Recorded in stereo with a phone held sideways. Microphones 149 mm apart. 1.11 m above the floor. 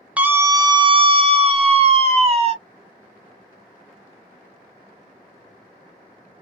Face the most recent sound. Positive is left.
turn(degrees=-40)  # may be behind; listen again after turning